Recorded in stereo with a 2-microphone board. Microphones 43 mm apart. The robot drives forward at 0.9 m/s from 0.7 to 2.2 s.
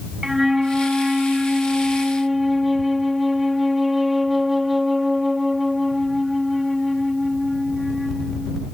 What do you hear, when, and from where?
0.2 s a flute: 10° right (ahead or behind); by 8.7 s 5° right (ahead or behind)